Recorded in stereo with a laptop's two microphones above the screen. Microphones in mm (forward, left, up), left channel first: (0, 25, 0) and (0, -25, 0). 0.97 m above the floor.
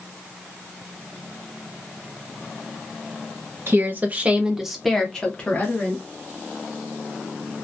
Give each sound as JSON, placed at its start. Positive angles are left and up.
{"t": 3.7, "sound": "a woman speaking", "side_deg": -50, "distance_m": 0.7}